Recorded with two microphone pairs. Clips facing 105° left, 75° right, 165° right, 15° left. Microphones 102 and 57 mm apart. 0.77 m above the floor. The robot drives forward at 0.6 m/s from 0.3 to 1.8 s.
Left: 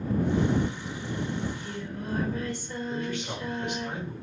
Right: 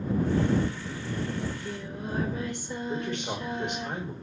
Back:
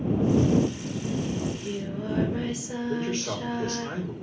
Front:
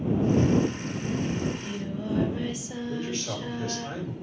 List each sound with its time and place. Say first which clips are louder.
1.4 s singing: even, even; 145° right, 3.5 m; by 3.9 s 150° right, 3.5 m
2.9 s a man speaking: right 1 dB, back 3 dB; 135° right, 4 m